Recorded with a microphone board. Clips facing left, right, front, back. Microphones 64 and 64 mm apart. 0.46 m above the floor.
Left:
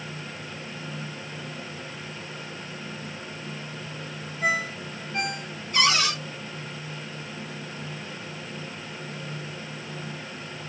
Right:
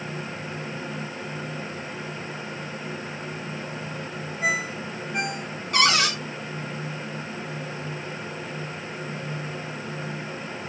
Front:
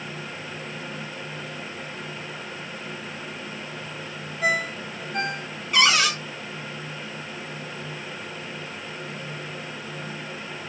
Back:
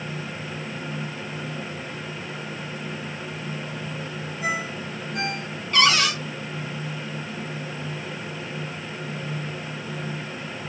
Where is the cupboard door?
85° right, 1.3 m.